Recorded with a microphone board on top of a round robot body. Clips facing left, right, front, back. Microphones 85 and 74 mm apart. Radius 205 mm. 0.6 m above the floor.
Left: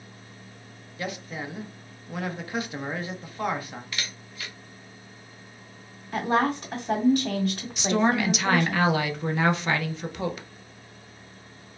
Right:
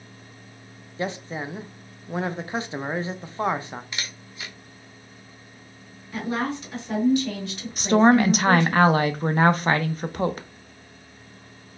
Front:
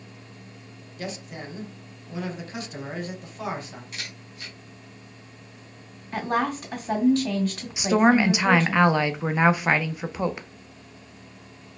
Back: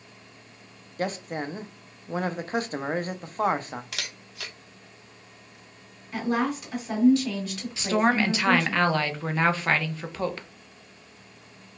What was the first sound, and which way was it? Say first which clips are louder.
A man speaking: right 4 dB, back 6 dB; 145° right.